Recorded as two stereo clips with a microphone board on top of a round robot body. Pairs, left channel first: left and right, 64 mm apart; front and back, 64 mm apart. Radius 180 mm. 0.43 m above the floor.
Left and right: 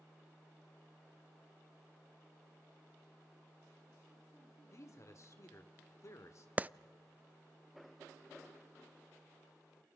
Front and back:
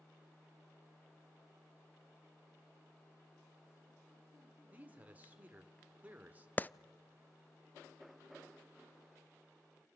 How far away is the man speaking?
About 2.5 m.